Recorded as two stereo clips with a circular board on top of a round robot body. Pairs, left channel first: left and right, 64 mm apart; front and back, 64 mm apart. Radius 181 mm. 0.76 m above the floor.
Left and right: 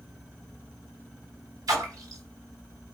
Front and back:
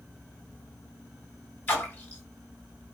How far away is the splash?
About 1.5 m.